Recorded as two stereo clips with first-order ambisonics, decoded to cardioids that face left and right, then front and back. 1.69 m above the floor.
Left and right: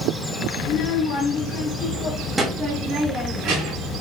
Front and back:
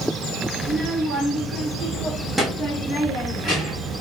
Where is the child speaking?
105° left, 1.2 m; by 4.0 s 80° right, 1.4 m.